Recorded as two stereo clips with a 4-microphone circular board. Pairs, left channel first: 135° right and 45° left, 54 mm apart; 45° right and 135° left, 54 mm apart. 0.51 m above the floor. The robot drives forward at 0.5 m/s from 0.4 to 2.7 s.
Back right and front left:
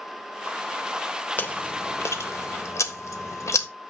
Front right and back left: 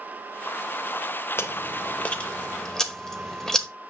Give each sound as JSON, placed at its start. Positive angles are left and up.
{"t": 1.4, "sound": "chewing", "azimuth_deg": -85, "distance_m": 0.9}